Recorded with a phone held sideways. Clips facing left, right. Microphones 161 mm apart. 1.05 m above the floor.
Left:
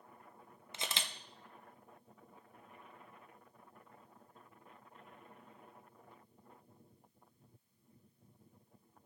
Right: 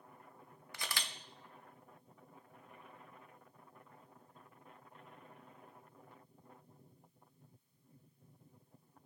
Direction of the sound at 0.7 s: 25° left (ahead or behind).